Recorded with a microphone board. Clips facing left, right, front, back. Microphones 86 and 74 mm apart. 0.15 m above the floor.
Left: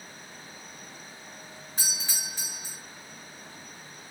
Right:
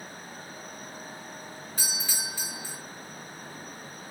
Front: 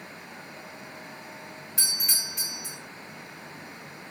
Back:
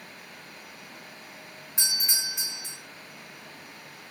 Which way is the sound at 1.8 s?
140° left.